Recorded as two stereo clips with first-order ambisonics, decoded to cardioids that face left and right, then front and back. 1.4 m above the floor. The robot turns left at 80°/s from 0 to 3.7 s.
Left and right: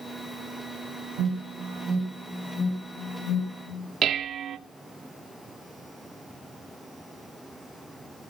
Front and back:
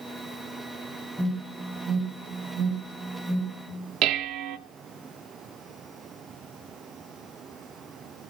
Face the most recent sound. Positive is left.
turn(degrees=-145)